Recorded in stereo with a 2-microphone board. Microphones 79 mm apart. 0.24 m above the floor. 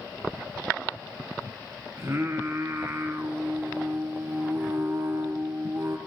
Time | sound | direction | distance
2.0 | singing | 30° right (ahead or behind) | 0.8 m